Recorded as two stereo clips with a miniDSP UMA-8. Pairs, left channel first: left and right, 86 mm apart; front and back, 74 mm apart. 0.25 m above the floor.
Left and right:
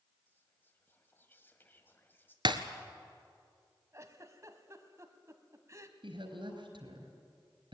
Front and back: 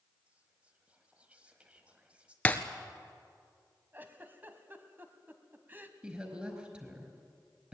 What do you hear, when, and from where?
0.3 s whispering: 125° left, 1.2 m
2.5 s breaking glass: 70° right, 1.4 m
3.9 s a giggle: 125° right, 1.6 m
6.0 s a woman speaking: 105° right, 4.5 m